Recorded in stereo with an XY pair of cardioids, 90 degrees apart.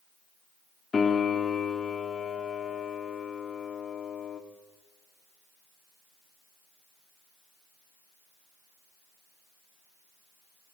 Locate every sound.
0.9 s a piano: 45° left, 3 m